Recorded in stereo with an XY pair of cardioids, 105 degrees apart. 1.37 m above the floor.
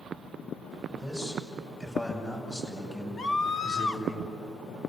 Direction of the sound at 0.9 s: 20° left.